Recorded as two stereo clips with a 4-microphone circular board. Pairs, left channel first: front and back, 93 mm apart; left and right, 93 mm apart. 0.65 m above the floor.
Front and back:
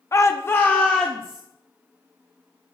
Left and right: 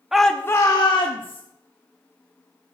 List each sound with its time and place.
0.1 s a shout: 10° right, 0.6 m; by 1.4 s 80° left, 1.1 m